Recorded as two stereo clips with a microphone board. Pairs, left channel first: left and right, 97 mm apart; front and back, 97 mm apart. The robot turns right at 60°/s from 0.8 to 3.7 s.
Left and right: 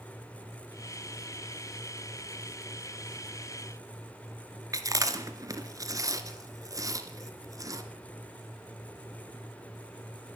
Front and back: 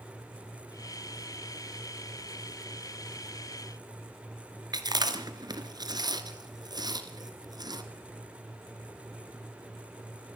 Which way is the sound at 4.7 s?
140° right.